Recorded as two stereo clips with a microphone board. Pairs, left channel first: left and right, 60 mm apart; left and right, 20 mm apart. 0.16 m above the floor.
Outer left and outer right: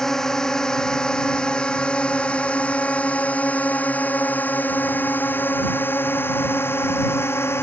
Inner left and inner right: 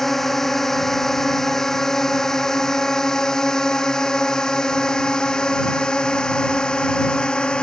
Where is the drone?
10° left (ahead or behind); by 7.6 s 45° left (ahead or behind).